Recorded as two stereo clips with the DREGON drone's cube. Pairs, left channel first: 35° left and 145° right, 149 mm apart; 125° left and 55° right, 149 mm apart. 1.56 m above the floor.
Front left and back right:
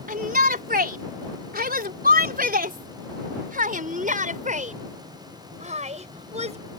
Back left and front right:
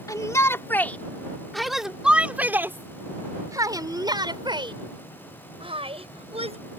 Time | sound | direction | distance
0.1 | a shout | 170° right | ?